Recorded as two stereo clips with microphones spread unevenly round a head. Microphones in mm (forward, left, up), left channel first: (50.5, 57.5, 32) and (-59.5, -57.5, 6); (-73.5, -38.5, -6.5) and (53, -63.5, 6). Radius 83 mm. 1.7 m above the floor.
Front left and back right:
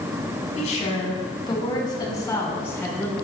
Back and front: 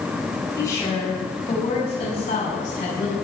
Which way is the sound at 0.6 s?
95° left.